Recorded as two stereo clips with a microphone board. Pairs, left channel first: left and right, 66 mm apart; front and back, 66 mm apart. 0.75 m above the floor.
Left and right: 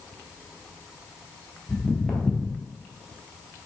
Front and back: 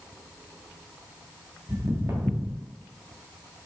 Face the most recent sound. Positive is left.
turn(degrees=175)